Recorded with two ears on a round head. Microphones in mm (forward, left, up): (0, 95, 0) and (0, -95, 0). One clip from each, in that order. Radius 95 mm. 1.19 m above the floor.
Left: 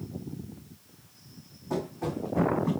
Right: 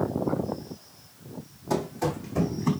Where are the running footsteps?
65° right (ahead or behind), 2.5 m; by 2.7 s 70° right (ahead or behind), 3 m.